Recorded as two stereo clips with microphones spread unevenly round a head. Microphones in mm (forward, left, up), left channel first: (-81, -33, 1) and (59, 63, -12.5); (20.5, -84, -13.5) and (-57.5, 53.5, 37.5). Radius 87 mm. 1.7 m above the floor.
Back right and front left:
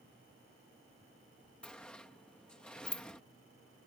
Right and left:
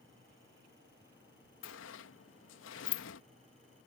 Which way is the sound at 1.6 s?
65° right.